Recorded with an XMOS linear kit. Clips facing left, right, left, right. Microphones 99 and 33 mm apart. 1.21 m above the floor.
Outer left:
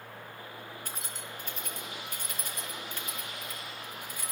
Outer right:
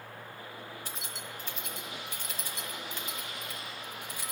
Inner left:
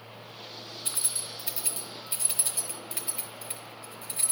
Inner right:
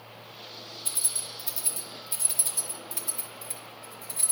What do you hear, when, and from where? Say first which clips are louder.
0.8 s keys jangling: even, even; 50° left (ahead or behind), 1.0 m